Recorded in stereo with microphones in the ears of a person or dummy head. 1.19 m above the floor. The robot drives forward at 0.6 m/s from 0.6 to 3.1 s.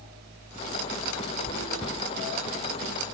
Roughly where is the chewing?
Centre.